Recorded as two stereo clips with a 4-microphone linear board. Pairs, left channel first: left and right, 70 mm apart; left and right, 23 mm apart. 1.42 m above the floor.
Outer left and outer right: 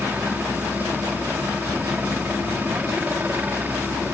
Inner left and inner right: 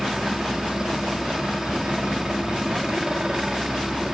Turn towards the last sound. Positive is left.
turn(degrees=-25)  # may be behind; listen again after turning